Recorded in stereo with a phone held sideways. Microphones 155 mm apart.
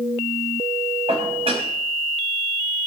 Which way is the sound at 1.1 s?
40° right (ahead or behind).